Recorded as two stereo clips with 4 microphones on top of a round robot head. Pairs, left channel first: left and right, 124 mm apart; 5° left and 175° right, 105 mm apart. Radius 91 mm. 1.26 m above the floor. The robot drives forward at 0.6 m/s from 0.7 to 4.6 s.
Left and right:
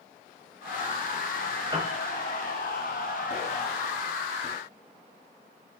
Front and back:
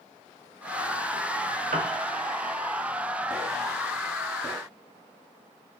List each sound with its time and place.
1.7 s a piano: 155° right, 1.5 m; by 2.0 s 160° right, 1.7 m